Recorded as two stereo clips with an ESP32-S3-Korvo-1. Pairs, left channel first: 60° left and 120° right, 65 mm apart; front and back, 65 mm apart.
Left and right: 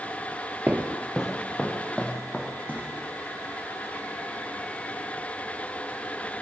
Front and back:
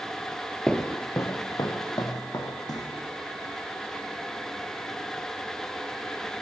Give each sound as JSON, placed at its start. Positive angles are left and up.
{"t": 0.7, "sound": "footsteps", "azimuth_deg": -70, "distance_m": 1.1}